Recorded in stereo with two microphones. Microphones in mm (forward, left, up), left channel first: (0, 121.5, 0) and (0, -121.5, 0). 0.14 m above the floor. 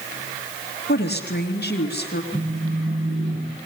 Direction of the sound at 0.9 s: 50° left (ahead or behind).